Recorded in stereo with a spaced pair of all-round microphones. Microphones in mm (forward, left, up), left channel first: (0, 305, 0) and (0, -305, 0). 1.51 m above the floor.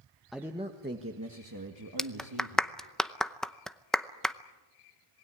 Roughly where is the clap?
Centre.